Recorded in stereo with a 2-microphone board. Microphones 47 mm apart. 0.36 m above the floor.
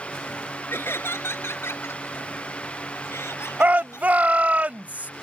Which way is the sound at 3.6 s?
35° right (ahead or behind).